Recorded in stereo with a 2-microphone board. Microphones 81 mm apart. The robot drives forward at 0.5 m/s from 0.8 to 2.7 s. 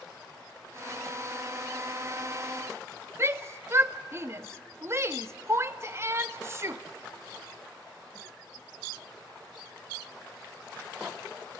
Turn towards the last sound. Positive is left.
turn(degrees=-35)  # may be behind; listen again after turning